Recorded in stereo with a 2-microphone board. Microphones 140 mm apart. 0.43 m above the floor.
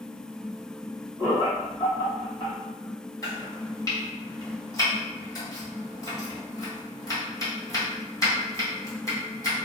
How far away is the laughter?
About 1.7 m.